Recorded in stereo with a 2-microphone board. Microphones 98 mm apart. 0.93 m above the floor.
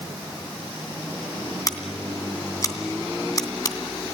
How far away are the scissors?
About 2.5 m.